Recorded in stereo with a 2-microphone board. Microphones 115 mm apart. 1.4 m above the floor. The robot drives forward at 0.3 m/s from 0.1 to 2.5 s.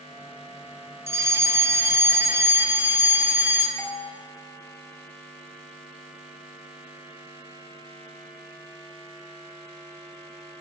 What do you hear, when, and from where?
1.1 s a fire alarm: 25° right (ahead or behind), 0.7 m; by 3.7 s 20° right (ahead or behind), 0.9 m
3.8 s a doorbell: 10° left (ahead or behind), 1.0 m